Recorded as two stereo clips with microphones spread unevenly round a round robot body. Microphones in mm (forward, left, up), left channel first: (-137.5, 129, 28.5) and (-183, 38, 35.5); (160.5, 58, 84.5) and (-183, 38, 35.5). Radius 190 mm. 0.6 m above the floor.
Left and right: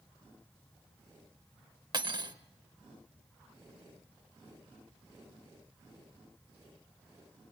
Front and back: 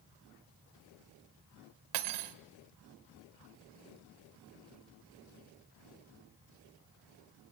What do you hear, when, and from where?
1.9 s cutlery clinking: 170° right, 1.4 m